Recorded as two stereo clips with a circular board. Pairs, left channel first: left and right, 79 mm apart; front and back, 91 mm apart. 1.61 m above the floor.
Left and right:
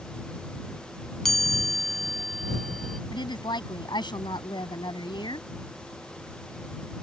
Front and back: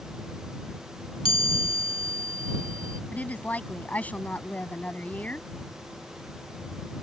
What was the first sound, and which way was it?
A chime, 5° left.